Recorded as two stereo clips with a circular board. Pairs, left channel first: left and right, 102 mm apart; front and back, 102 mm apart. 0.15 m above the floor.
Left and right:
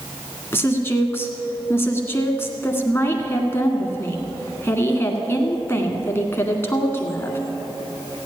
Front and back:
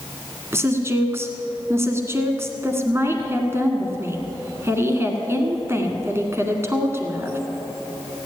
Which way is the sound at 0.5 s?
140° left.